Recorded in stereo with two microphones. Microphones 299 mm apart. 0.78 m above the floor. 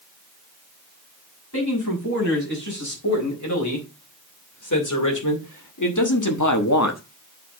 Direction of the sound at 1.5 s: 60° left (ahead or behind).